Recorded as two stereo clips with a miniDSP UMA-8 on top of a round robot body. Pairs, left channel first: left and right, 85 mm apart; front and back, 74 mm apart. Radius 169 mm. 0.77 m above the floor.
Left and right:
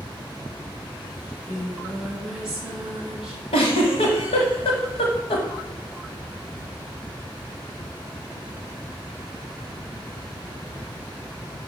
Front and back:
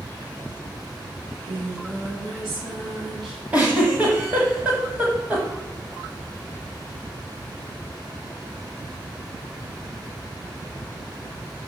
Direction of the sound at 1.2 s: 175° right.